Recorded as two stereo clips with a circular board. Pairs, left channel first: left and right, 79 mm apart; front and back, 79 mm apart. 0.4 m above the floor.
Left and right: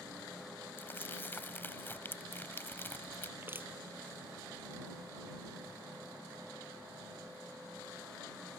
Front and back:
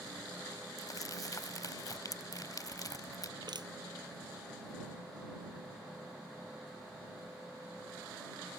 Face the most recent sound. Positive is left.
turn(degrees=-150)